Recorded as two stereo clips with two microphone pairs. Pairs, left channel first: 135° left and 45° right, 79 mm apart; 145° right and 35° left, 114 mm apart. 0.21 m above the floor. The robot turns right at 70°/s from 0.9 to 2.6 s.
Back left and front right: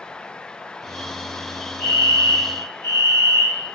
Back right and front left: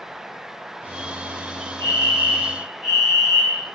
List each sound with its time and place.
1.8 s a fire alarm: 65° left, 3 m; by 3.6 s 120° left, 3 m